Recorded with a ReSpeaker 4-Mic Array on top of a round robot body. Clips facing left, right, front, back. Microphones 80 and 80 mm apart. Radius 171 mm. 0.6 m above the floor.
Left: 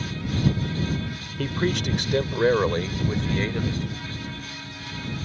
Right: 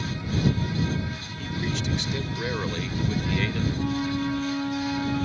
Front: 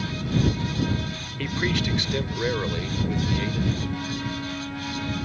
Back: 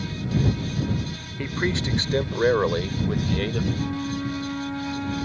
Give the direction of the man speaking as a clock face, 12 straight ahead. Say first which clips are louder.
Left 6 dB, even; 8 o'clock.